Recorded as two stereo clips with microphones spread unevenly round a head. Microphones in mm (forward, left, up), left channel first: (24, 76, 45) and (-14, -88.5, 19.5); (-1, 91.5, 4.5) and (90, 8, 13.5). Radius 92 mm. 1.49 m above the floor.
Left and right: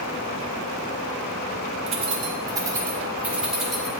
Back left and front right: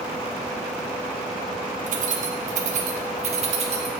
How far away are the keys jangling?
About 1.1 m.